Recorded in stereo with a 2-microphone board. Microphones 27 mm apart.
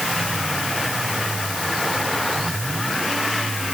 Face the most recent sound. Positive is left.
No sound to turn to.